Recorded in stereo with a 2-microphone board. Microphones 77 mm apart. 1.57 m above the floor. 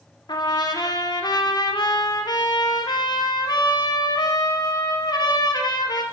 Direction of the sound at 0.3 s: 65° left (ahead or behind).